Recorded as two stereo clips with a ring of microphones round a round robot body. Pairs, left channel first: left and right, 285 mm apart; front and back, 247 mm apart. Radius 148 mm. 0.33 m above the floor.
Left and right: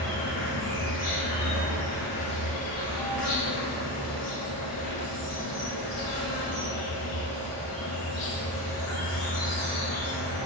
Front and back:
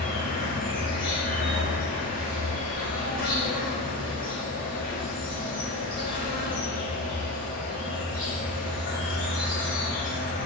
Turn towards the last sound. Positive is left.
turn(degrees=55)